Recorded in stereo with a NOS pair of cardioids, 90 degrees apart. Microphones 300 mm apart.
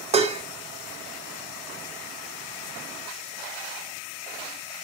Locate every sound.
0.1 s dishes clattering: 20° right, 0.6 m